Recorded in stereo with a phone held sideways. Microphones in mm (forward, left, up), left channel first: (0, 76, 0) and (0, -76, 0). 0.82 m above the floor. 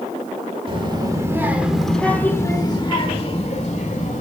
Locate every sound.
0.7 s a child speaking: 35° right (ahead or behind), 1.3 m; by 4.2 s 50° left (ahead or behind), 1.9 m